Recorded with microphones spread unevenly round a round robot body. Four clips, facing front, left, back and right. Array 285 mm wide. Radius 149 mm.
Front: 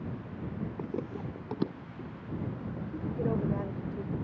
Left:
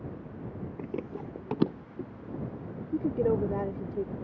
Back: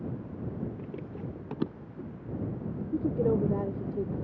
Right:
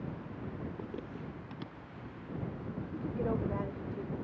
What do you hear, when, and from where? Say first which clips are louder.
0.8 s running footsteps: left 6 dB, front 3 dB; 20° left; by 2.8 s 100° left
2.9 s a woman speaking: left 9 dB, back 6 dB; 140° left